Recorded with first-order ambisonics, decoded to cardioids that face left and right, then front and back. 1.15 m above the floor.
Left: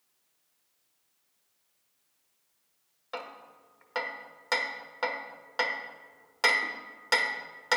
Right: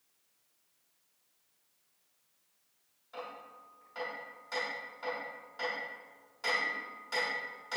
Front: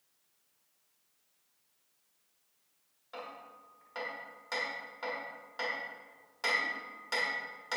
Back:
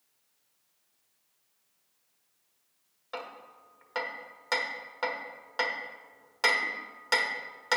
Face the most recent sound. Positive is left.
turn(degrees=120)